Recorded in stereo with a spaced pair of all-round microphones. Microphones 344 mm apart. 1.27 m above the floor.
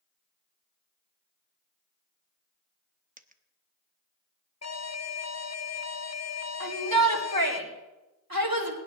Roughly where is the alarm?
Left.